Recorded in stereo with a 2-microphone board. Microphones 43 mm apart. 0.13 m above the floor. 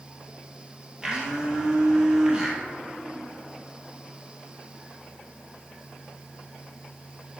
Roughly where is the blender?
Centre.